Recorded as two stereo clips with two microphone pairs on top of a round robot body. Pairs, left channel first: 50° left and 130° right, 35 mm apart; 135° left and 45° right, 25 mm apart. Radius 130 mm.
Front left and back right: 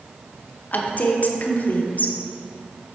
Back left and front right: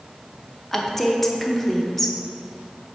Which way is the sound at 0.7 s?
50° left.